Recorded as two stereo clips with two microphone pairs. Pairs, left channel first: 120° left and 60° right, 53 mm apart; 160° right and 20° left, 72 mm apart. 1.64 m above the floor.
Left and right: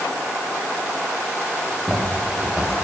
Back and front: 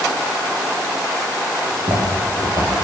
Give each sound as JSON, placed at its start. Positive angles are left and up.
{"t": 1.6, "sound": "footsteps", "azimuth_deg": 15, "distance_m": 7.0}